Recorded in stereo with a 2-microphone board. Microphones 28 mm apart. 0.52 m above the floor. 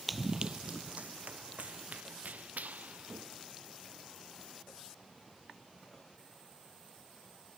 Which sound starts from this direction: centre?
Running footsteps, at 0.1 s.